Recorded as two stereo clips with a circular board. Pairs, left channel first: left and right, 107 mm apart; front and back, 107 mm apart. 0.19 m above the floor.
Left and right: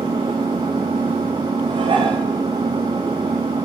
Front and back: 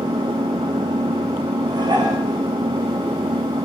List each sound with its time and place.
0.0 s an engine running: 135° right, 1.9 m
1.7 s dishes clattering: 130° right, 8 m